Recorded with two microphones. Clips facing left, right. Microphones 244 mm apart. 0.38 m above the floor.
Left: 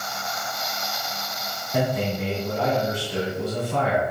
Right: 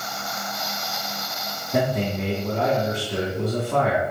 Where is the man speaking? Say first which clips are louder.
Right 1 dB; 65° right (ahead or behind), 3 m.